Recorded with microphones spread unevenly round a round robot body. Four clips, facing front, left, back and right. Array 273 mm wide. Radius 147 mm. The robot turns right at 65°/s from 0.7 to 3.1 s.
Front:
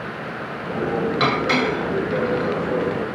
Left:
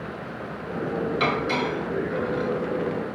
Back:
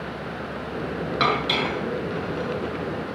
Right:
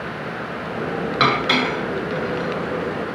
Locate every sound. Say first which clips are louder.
1.2 s dishes clattering: right 8 dB, front 1 dB; 90° right, 6 m; by 2.5 s 5° right, 6 m